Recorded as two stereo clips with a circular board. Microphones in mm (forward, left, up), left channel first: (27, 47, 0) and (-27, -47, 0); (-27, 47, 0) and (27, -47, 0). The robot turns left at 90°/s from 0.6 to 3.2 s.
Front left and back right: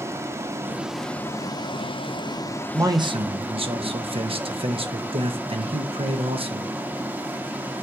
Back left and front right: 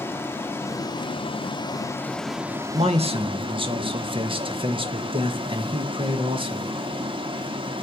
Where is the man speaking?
55° right, 1.1 m; by 6.7 s 95° right, 1.1 m.